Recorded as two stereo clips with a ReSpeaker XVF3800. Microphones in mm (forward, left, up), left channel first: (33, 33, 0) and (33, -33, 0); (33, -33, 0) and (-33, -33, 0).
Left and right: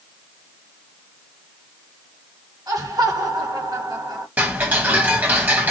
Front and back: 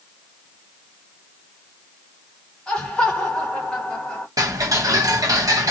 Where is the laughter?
80° right, 1.7 m.